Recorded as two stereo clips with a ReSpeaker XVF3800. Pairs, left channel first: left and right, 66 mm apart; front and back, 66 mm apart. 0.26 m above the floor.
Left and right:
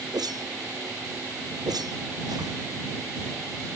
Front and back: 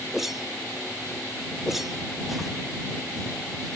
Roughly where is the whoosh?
Right.